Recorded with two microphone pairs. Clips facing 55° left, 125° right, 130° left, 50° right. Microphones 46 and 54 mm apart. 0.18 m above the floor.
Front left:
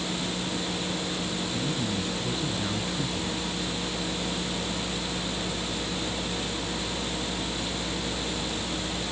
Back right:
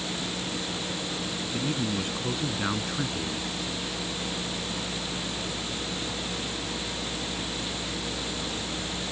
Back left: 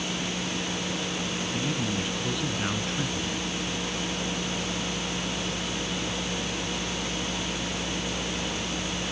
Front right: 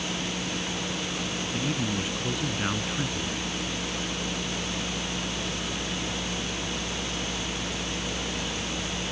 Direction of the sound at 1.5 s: 125° right.